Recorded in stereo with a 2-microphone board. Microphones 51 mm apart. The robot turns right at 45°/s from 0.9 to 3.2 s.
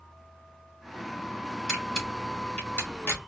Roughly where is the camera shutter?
Centre.